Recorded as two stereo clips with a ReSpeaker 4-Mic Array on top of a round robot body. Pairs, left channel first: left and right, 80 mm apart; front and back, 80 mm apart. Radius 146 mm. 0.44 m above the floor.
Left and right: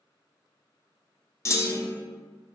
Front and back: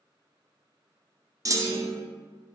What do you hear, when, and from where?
1.4 s a clunk: 140° left, 0.6 m